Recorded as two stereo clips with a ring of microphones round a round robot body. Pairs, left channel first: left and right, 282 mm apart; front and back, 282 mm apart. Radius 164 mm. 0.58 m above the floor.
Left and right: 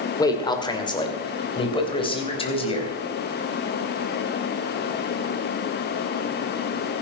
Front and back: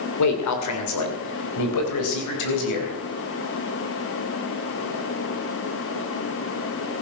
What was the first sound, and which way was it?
A man speaking, 15° left.